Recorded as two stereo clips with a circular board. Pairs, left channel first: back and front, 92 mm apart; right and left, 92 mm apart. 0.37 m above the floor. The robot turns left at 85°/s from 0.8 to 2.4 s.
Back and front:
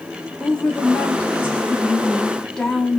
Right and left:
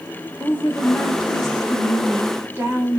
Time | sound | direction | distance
0.4 | a woman speaking | 120° right | 0.8 m